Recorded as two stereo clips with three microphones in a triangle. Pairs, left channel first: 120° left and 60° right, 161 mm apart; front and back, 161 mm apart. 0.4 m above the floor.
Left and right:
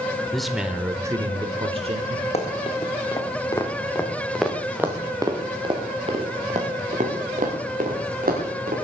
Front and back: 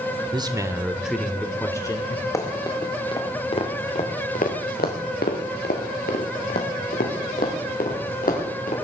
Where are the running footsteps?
70° left, 3.5 m; by 8.7 s 35° right, 5.5 m.